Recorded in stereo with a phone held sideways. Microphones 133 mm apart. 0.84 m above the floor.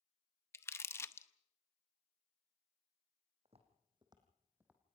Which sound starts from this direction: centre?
Crumpling, at 0.5 s.